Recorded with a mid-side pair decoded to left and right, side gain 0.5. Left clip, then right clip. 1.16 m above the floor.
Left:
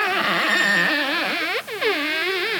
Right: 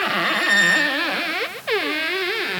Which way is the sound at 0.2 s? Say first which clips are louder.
Right 5 dB; 35° right.